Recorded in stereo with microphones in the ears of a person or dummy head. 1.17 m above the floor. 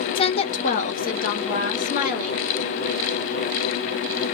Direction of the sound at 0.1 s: 20° left (ahead or behind).